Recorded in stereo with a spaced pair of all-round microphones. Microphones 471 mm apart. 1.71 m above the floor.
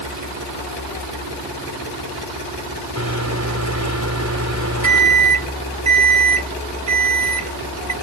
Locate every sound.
3.0 s a microwave: 30° right (ahead or behind)